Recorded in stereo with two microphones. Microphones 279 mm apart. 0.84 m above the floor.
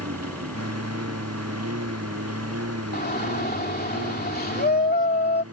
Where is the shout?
35° left (ahead or behind).